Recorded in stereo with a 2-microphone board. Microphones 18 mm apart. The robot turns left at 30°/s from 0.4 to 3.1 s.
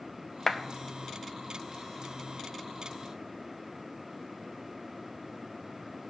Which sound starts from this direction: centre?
A clap, at 0.5 s.